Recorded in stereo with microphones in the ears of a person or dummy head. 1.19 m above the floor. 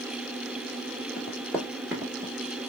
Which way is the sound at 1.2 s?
15° left (ahead or behind).